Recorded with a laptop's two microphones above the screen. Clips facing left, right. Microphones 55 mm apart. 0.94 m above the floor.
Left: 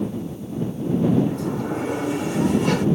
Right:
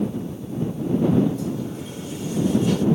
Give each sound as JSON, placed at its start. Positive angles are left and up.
{"t": 1.3, "sound": "a sliding door", "side_deg": 70}